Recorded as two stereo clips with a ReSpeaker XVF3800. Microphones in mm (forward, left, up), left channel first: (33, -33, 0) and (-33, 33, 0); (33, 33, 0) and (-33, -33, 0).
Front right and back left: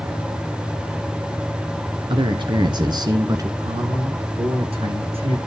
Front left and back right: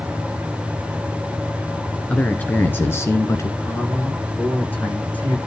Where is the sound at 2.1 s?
120° left, 1.8 m; by 3.5 s 90° left, 1.7 m.